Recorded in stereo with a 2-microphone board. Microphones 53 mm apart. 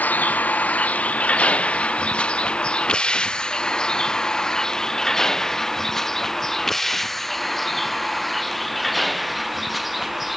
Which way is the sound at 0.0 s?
30° left (ahead or behind).